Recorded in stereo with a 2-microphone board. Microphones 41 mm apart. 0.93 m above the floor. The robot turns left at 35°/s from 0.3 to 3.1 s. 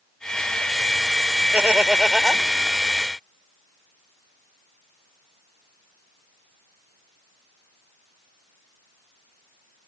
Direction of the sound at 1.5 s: 150° right.